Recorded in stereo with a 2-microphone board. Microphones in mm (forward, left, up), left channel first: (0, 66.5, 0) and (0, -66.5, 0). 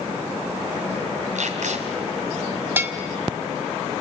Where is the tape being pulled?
80° right, 3 m.